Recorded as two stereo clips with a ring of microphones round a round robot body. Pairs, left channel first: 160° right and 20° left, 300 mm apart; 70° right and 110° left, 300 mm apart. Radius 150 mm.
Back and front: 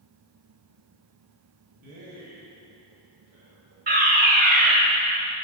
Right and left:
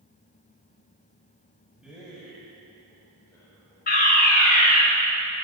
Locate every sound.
1.8 s a man speaking: 30° left, 2.5 m; by 3.8 s straight ahead, 1.8 m
3.9 s a fire alarm: 20° right, 2.5 m